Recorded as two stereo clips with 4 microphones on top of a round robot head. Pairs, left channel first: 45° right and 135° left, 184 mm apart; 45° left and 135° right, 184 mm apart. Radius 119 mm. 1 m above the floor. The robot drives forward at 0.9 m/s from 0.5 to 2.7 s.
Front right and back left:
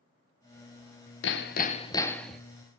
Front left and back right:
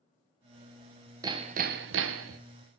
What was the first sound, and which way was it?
Hammering, 65° right.